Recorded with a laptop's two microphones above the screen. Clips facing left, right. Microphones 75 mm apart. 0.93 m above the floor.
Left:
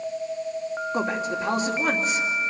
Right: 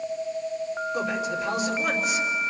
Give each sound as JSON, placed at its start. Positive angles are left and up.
{"t": 0.9, "sound": "a man speaking", "side_deg": 35, "distance_m": 3.0}